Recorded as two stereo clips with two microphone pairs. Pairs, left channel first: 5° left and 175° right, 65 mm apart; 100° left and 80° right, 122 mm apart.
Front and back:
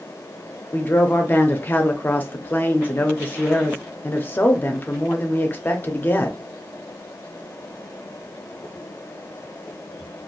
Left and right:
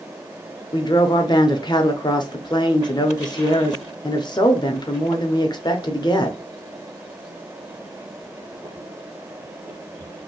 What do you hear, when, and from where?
0.7 s a woman speaking: 55° left, 0.6 m